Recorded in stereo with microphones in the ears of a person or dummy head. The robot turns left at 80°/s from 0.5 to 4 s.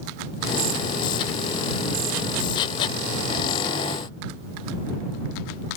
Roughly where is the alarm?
No alarm in this recording.